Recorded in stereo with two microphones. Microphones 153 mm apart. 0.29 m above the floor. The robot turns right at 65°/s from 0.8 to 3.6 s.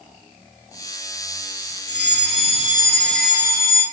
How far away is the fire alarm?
About 5 m.